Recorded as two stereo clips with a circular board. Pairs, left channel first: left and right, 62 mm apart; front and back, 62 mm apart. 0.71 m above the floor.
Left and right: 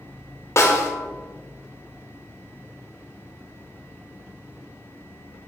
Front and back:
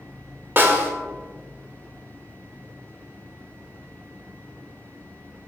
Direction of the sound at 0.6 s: 125° left.